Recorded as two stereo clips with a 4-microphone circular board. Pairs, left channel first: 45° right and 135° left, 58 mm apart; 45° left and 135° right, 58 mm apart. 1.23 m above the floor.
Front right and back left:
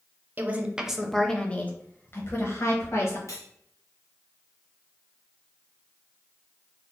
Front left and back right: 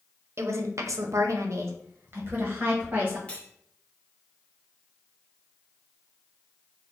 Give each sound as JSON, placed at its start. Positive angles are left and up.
{"t": 0.4, "sound": "a woman speaking", "azimuth_deg": -170, "distance_m": 0.7}
{"t": 3.3, "sound": "cutlery clinking", "azimuth_deg": -25, "distance_m": 0.9}